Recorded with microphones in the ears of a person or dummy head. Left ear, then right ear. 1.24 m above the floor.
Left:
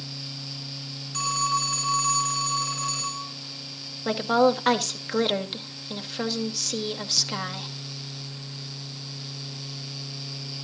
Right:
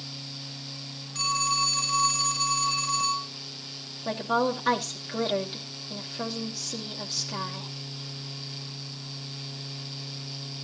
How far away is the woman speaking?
About 2.5 m.